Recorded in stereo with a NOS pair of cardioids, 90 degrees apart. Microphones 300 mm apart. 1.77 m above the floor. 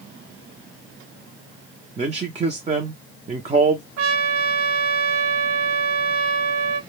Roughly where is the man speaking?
Ahead right.